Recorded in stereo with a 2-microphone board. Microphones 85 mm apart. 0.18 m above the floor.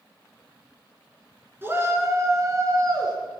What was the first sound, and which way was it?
A shout, 25° right (ahead or behind).